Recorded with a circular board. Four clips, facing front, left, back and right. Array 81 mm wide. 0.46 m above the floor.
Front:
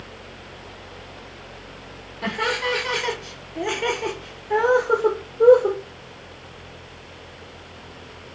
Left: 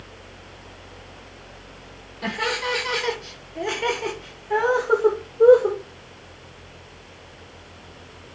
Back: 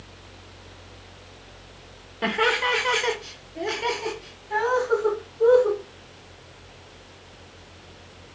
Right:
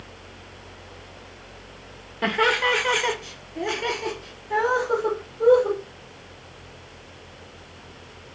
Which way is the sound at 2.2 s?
125° right.